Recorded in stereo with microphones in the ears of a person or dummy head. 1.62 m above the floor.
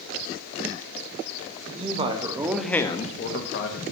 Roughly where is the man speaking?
Right.